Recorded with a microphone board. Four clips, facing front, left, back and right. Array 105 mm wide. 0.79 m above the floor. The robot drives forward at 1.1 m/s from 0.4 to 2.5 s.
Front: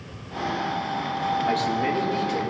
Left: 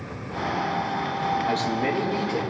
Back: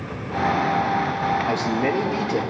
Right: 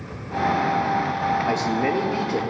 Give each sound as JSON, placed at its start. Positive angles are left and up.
{"t": 1.5, "sound": "a man speaking", "azimuth_deg": -105, "distance_m": 1.1}